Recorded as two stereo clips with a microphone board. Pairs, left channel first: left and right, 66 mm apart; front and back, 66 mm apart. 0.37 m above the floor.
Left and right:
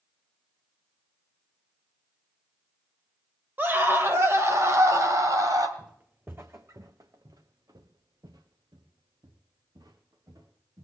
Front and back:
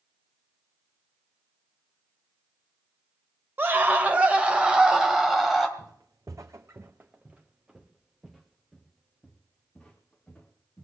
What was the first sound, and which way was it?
A scream, 135° right.